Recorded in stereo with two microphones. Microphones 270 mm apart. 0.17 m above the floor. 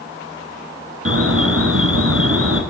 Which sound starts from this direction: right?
An alarm, at 1.1 s.